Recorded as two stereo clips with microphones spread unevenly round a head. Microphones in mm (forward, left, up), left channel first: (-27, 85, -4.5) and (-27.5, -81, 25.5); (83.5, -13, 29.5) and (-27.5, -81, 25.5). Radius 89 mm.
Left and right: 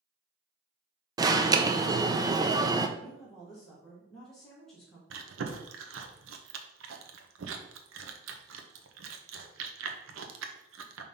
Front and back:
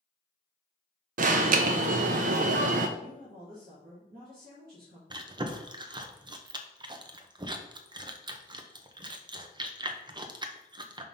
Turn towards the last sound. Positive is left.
turn(degrees=-90)